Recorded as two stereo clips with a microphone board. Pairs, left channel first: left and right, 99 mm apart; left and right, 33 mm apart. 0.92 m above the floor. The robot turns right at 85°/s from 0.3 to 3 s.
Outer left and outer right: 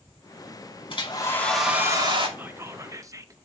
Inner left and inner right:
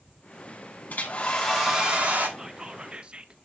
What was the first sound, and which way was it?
A hair dryer, 120° left.